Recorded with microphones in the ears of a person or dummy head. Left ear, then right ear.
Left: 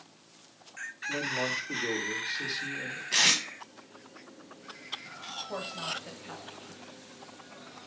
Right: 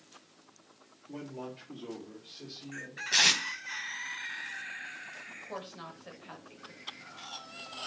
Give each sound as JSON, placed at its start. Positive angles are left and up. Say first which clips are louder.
{"t": 1.1, "sound": "a man speaking", "louder": "left 12 dB", "side_deg": 55, "distance_m": 3.0}
{"t": 3.1, "sound": "tape being pulled", "louder": "even", "side_deg": -30, "distance_m": 1.5}
{"t": 5.3, "sound": "a woman speaking", "louder": "left 5 dB", "side_deg": -10, "distance_m": 1.0}